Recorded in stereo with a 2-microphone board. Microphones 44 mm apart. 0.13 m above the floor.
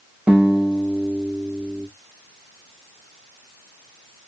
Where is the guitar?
25° right (ahead or behind), 1.1 m.